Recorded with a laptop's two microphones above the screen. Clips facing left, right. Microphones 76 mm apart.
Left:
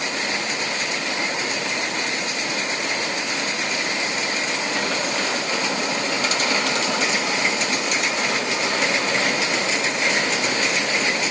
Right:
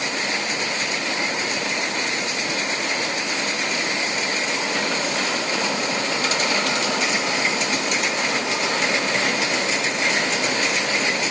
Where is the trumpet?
I don't hear a trumpet.